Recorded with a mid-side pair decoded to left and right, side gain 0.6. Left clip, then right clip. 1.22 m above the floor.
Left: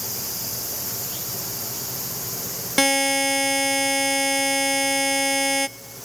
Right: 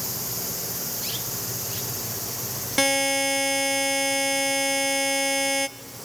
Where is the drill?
No drill in this recording.